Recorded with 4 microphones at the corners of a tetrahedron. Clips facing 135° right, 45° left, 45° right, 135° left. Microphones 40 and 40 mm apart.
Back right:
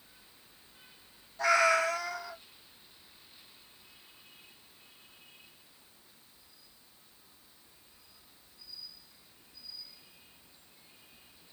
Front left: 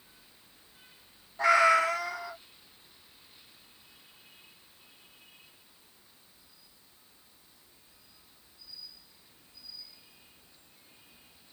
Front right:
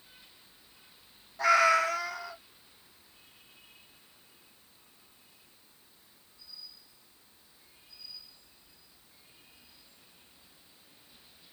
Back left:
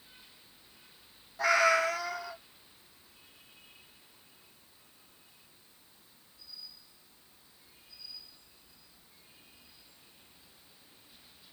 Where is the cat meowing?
50° left, 1.2 m.